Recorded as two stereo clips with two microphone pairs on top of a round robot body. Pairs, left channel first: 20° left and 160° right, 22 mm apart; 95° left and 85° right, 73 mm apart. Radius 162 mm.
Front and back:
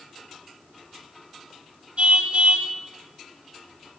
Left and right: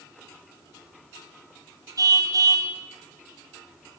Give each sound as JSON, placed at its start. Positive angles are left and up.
{"t": 2.0, "sound": "a car horn", "azimuth_deg": -120, "distance_m": 3.0}